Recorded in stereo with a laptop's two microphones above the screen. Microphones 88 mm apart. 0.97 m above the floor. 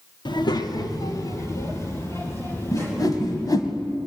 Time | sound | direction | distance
0.2 | a child speaking | 60° left (ahead or behind) | 1.7 m
2.7 | a whoosh | 45° left (ahead or behind) | 1.8 m